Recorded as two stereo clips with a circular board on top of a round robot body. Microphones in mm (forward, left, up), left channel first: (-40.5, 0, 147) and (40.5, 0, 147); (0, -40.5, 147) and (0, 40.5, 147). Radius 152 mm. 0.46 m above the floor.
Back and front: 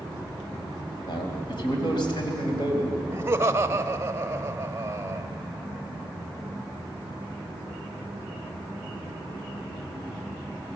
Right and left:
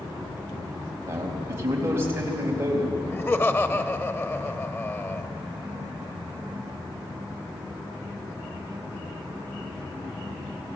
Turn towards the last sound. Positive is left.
turn(degrees=-45)